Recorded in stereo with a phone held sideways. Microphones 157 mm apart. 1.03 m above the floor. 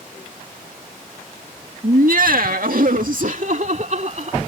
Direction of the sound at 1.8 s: 65° right (ahead or behind).